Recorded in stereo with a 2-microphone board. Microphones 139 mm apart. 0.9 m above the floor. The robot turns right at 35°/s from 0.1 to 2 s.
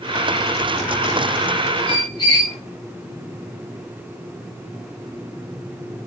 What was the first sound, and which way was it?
A squeak, 35° left (ahead or behind).